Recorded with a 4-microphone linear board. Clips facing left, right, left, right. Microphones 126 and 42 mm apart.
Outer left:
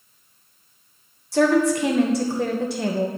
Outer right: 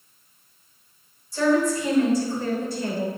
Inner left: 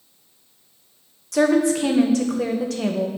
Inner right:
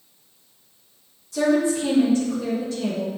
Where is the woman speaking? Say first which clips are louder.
Outer left 3 dB, inner left 2 dB; 75° left (ahead or behind), 1.0 m.